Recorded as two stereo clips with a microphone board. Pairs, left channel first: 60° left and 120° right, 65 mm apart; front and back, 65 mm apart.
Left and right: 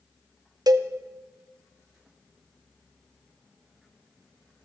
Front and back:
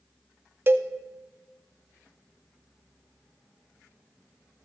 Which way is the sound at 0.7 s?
125° right.